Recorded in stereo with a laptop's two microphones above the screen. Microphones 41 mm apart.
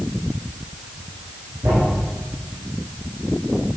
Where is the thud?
65° right (ahead or behind), 6 m.